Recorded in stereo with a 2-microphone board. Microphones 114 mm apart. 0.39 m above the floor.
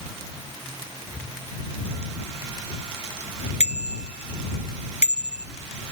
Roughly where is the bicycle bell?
Left.